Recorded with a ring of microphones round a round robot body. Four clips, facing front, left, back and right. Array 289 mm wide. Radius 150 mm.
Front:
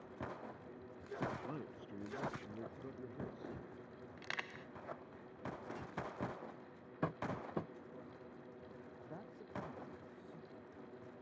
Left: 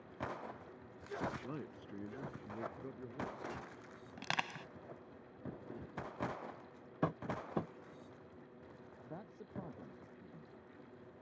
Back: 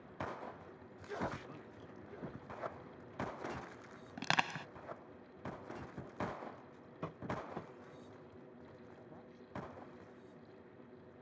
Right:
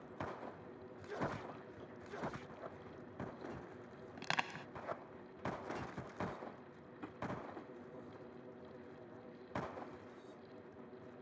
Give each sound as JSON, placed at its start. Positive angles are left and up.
{"t": 1.4, "sound": "a man speaking", "azimuth_deg": 55}
{"t": 4.2, "sound": "crushing", "azimuth_deg": 180}
{"t": 7.0, "sound": "tapping", "azimuth_deg": 70}
{"t": 9.0, "sound": "a man speaking", "azimuth_deg": 65}